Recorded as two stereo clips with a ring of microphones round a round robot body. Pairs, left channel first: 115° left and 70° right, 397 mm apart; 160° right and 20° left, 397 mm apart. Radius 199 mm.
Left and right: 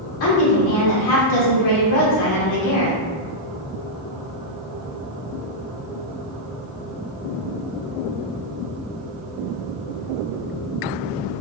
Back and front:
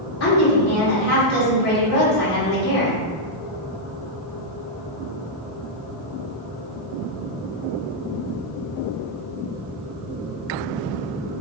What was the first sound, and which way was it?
A woman speaking, 150° left.